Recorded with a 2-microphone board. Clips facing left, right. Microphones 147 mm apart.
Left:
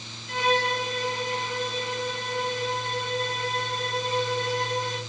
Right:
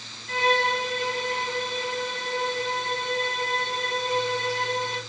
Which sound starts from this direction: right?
A violin, at 0.3 s.